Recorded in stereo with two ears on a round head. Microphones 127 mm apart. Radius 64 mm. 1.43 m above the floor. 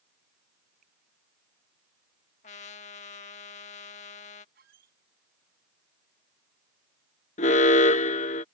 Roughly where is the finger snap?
Right.